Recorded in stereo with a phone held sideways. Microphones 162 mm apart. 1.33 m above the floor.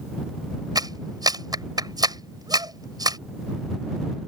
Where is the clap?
25° right (ahead or behind).